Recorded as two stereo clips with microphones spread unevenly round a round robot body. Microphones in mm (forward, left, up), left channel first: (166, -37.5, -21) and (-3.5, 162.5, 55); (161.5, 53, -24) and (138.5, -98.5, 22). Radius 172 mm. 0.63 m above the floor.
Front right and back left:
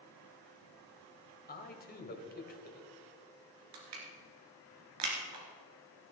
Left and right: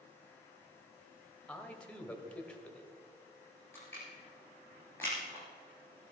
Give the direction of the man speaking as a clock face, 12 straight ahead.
12 o'clock.